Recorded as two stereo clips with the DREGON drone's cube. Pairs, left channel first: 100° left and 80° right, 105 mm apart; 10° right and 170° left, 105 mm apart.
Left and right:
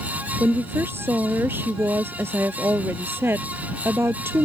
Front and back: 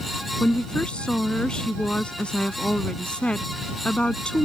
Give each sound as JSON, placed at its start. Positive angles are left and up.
{"t": 0.4, "sound": "a woman speaking", "azimuth_deg": -75}